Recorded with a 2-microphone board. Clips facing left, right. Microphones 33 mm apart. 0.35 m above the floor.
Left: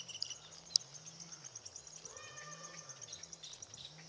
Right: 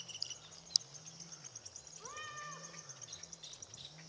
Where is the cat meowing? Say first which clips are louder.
Right 6 dB; 70° right (ahead or behind), 1.5 m.